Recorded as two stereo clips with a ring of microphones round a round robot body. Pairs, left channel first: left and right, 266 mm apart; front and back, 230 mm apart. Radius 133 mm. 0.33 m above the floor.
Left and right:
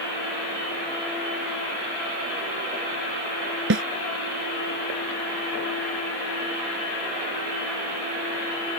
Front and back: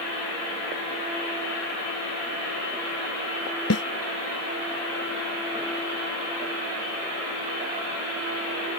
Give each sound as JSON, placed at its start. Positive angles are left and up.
{"t": 3.7, "sound": "a snare drum", "azimuth_deg": -40}